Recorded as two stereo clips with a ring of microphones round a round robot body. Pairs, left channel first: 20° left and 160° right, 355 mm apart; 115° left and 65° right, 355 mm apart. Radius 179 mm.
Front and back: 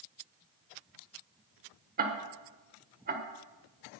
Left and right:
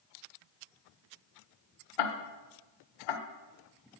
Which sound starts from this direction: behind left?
Ticking, at 2.0 s.